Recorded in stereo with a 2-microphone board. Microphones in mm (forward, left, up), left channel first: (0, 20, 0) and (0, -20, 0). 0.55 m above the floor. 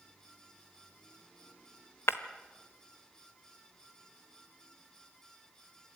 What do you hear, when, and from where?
2.1 s breaking glass: 80° left, 1.0 m